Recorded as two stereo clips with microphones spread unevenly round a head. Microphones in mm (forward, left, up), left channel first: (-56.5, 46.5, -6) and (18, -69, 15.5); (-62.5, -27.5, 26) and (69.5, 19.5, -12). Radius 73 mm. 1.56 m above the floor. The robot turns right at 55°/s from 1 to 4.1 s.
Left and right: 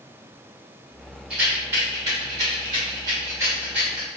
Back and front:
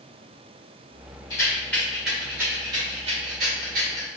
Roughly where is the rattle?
Behind right.